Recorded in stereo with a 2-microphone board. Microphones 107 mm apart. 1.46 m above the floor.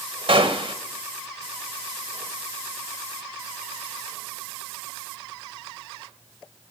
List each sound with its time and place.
0.3 s a gunshot: 60° right (ahead or behind), 1.5 m